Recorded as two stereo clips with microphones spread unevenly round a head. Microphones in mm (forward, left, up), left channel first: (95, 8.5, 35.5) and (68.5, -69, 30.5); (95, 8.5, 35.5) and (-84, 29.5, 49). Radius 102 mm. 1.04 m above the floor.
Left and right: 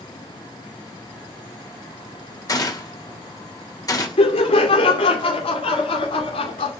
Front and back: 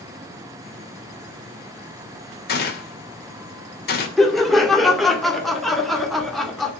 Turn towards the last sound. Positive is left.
turn(degrees=80)